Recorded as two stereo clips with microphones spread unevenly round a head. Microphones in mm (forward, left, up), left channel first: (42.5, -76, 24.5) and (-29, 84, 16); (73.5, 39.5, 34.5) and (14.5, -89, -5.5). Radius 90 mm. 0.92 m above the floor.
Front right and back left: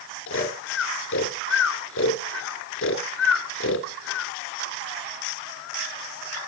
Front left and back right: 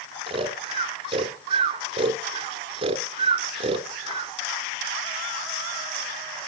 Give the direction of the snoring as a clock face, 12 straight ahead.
3 o'clock.